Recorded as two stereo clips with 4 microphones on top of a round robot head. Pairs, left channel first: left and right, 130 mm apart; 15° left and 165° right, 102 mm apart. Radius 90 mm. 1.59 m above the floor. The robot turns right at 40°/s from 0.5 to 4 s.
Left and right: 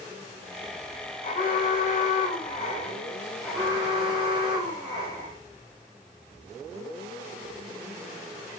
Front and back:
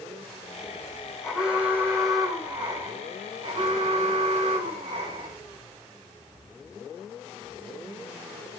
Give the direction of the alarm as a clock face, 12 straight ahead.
9 o'clock.